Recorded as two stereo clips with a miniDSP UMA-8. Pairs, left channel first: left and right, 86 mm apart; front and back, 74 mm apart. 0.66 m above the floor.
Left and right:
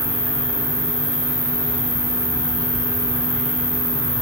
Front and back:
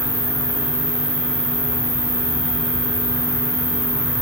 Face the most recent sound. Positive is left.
turn(degrees=155)